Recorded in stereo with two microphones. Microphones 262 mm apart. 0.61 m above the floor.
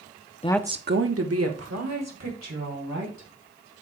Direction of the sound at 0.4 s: 25° left (ahead or behind).